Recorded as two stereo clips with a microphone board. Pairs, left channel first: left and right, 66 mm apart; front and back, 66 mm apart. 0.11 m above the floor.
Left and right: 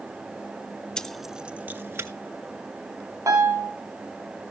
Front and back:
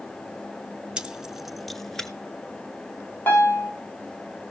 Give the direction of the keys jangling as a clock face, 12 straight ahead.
7 o'clock.